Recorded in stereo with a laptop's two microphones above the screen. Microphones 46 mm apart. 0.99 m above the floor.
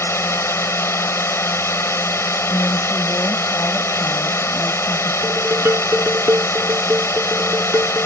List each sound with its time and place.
0.0 s a drone: 75° left (ahead or behind)
2.5 s a woman speaking: 55° left (ahead or behind)
5.2 s dishes clattering: 65° right (ahead or behind)